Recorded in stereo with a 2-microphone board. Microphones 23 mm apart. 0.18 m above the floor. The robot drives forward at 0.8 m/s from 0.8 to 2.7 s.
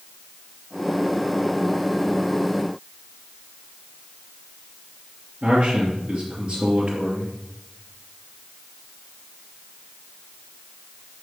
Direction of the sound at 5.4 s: 50° right (ahead or behind).